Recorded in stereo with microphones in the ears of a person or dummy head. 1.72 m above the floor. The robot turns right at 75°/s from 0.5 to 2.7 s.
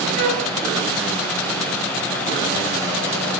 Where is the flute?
35° right (ahead or behind), 1.6 m.